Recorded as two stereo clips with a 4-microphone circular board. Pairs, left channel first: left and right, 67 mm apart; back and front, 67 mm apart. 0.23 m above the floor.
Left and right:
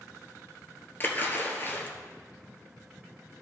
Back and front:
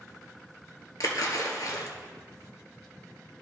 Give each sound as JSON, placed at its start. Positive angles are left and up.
{"t": 1.0, "sound": "a splash", "azimuth_deg": 150, "distance_m": 1.3}